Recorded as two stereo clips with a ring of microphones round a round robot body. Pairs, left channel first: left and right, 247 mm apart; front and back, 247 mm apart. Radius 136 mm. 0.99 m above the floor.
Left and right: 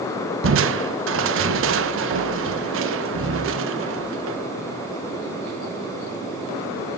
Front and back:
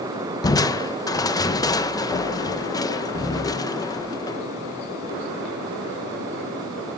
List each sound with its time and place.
0.4 s crushing: 75° right, 0.9 m